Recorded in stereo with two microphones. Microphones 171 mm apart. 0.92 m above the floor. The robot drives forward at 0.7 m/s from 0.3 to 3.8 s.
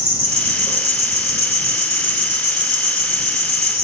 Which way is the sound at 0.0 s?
75° right (ahead or behind).